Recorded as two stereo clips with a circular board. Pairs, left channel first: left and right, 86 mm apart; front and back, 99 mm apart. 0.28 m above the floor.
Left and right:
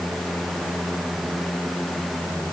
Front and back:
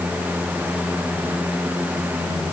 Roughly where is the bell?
No bell in this recording.